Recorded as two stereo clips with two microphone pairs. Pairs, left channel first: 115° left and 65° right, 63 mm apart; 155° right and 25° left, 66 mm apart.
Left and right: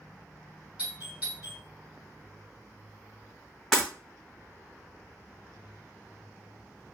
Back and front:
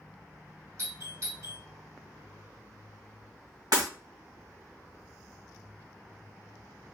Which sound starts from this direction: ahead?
A doorbell, at 0.8 s.